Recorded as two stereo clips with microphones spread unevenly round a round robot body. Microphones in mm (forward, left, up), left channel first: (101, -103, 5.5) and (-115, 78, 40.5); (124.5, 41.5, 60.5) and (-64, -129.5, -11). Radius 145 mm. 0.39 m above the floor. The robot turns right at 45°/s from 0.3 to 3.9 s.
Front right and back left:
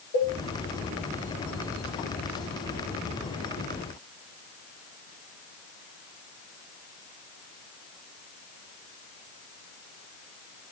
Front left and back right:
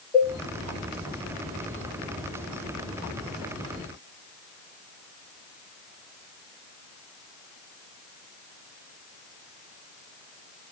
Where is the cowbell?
30° right, 5 m; by 0.4 s 25° right, 5 m.